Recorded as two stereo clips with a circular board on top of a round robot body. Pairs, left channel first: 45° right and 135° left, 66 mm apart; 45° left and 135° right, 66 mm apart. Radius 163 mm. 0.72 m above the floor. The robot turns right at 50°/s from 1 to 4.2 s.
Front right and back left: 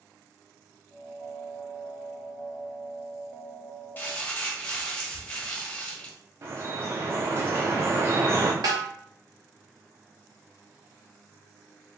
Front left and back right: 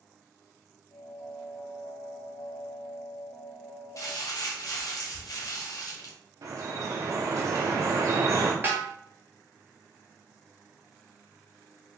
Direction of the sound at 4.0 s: 15° left.